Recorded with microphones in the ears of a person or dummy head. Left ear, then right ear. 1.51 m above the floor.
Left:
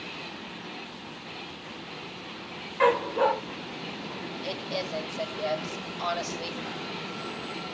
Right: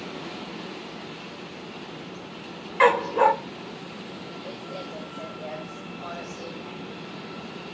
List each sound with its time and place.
2.8 s a dog barking: 30° right (ahead or behind), 1.2 m
4.4 s a woman speaking: 50° left (ahead or behind), 5 m